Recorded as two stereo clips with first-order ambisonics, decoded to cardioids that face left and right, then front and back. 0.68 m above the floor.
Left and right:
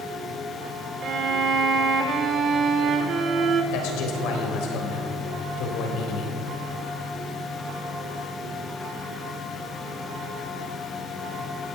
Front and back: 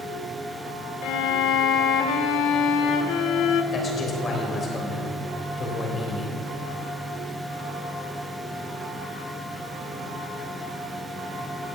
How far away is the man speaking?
About 3.5 m.